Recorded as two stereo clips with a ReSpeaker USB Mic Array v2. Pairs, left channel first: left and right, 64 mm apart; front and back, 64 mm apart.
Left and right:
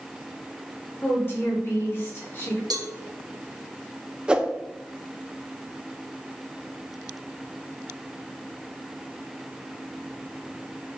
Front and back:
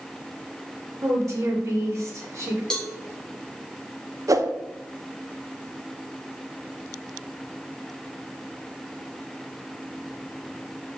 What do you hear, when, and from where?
1.0 s a woman speaking: 145° left, 3 m
2.7 s a cowbell: 80° right, 1.3 m
4.3 s a whoosh: 165° right, 0.7 m